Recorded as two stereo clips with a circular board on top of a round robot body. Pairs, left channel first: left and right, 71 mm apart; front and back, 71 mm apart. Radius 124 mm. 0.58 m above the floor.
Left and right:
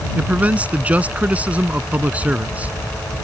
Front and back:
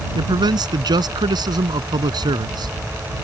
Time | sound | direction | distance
0.1 | a man speaking | 160° right | ?